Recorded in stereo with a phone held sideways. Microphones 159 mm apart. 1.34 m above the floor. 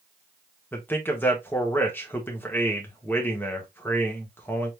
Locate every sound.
0.7 s a man speaking: 10° left (ahead or behind), 1.4 m